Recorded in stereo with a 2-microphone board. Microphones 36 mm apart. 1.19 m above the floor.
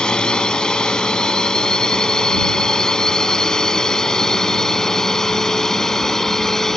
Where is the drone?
25° left (ahead or behind); by 6.8 s 15° left (ahead or behind).